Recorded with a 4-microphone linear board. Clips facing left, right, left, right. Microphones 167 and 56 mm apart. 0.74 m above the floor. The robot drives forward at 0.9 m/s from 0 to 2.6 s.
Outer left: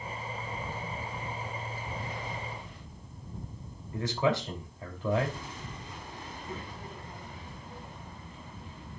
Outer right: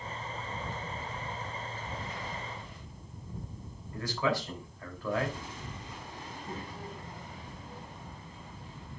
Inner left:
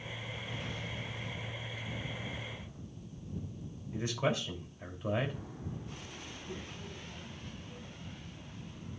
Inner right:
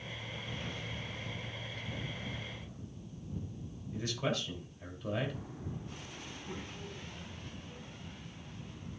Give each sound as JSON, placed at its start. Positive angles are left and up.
{"t": 3.9, "sound": "a man speaking", "side_deg": 25, "distance_m": 3.0}
{"t": 6.2, "sound": "a child speaking", "side_deg": -40, "distance_m": 5.5}